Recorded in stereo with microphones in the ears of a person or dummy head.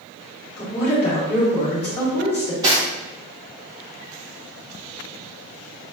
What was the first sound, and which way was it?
A woman speaking, 10° left (ahead or behind).